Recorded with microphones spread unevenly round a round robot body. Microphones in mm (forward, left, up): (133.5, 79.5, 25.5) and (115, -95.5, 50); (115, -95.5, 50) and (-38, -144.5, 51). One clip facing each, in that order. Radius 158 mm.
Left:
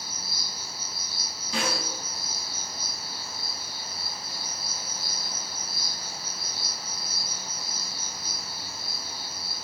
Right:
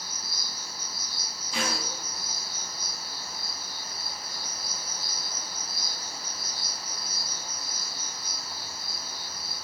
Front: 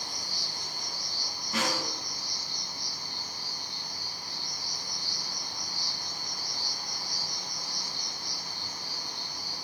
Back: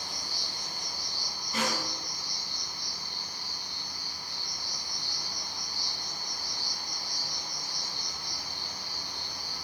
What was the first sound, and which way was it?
An insect, 55° left.